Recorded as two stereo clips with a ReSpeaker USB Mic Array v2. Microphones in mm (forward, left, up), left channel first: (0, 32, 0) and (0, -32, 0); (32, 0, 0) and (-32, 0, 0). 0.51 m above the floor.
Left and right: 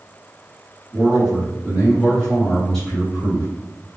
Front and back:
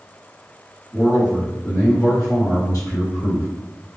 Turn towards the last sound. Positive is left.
turn(degrees=20)